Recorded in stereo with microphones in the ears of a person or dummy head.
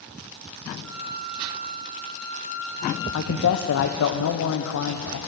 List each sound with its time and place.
0.8 s a flute: 5° left (ahead or behind), 4 m
3.1 s a man speaking: 80° left, 0.9 m